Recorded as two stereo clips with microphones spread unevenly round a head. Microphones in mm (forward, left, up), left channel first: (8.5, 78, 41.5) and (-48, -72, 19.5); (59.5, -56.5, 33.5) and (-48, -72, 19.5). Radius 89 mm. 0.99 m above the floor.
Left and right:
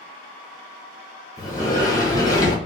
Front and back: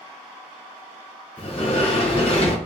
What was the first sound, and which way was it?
A sliding door, straight ahead.